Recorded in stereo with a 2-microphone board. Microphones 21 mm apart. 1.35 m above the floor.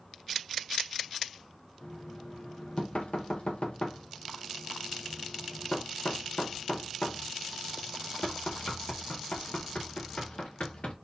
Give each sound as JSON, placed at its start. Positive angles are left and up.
{"t": 1.8, "sound": "knocking", "side_deg": 70, "distance_m": 1.3}